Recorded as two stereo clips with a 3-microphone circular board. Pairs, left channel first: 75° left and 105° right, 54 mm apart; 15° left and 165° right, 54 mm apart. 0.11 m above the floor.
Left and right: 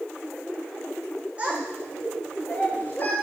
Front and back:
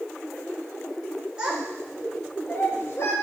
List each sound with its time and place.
1.4 s a child speaking: 125° right, 0.8 m; by 3.1 s 30° left, 1.4 m